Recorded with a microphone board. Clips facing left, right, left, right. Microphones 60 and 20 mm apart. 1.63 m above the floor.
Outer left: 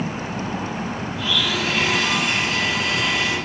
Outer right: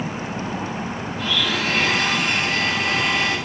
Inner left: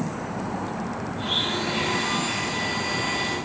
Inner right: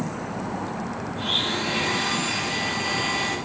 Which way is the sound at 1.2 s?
45° right (ahead or behind).